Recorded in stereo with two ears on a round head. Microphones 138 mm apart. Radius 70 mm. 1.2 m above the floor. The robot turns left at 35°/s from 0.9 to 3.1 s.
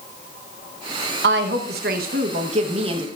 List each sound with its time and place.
1.2 s a woman speaking: 85° right, 1.1 m; by 3.1 s 145° right, 1.1 m